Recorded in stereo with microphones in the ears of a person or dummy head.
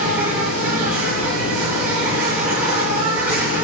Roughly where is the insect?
Right.